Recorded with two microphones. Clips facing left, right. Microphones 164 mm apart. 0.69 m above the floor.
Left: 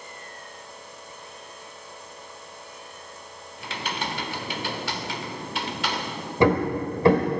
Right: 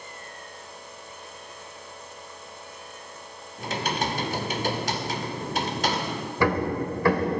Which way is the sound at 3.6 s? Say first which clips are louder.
Right 4 dB; 40° right (ahead or behind).